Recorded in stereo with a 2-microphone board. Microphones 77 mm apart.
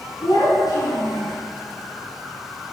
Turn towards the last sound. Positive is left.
turn(degrees=70)  # may be behind; listen again after turning